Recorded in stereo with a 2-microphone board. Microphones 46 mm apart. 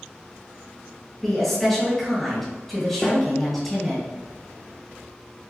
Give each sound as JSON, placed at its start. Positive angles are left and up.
{"t": 1.2, "sound": "a woman speaking", "side_deg": 5, "distance_m": 1.8}
{"t": 3.0, "sound": "a snare drum", "side_deg": 10, "distance_m": 1.0}